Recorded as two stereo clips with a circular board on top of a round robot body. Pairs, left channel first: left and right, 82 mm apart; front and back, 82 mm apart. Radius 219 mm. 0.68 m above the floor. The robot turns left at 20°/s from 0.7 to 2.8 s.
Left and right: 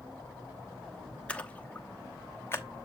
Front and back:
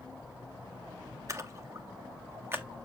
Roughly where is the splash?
Behind.